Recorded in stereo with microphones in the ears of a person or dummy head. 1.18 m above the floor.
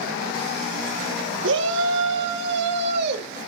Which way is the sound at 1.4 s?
65° right (ahead or behind).